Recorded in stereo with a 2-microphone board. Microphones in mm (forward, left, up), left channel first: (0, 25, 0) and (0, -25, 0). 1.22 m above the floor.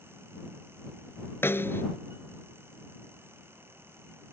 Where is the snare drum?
40° left (ahead or behind).